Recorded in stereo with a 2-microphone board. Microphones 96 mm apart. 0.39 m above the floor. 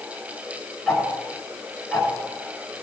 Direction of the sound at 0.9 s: 5° right (ahead or behind).